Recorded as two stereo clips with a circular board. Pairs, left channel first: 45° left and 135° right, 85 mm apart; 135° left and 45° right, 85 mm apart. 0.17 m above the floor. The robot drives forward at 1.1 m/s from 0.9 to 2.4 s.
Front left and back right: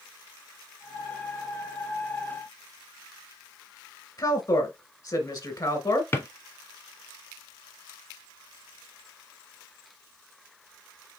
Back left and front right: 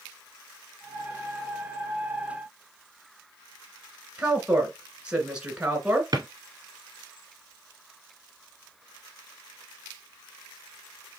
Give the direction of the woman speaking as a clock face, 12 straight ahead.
11 o'clock.